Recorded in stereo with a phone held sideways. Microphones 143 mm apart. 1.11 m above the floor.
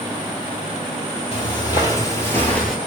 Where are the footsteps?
35° left (ahead or behind), 1.7 m; by 2.8 s centre (ahead or behind), 1.2 m.